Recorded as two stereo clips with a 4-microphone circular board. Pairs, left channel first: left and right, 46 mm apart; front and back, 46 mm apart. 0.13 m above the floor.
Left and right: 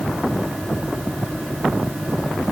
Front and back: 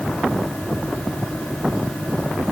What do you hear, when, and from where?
Only background noise.